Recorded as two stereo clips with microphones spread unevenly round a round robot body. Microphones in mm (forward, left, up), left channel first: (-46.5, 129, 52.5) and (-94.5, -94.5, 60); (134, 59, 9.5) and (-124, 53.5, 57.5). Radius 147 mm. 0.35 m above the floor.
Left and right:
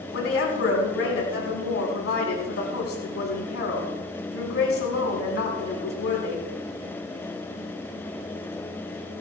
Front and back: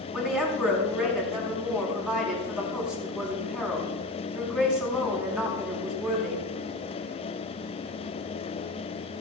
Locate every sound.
0.1 s a woman speaking: 90° left, 4 m